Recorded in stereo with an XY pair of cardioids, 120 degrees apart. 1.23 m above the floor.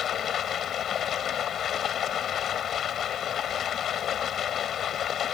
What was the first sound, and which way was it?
Running water, 50° left.